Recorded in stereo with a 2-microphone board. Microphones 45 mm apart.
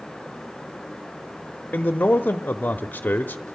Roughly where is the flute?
No flute in this recording.